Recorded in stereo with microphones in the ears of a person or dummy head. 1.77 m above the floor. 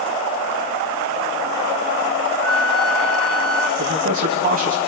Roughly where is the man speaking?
Right.